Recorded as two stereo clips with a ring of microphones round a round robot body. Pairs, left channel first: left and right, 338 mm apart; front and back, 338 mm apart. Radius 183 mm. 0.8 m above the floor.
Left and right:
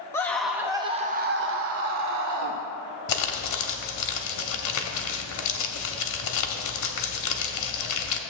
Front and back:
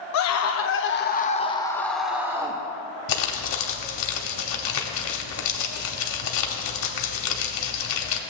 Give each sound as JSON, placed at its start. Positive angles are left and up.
{"t": 0.1, "sound": "a scream", "azimuth_deg": 10, "distance_m": 0.9}
{"t": 3.1, "sound": "crumpling", "azimuth_deg": 45, "distance_m": 0.8}